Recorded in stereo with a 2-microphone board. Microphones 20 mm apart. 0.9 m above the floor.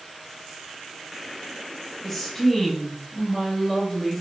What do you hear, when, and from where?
2.0 s a woman speaking: 15° left (ahead or behind), 5.5 m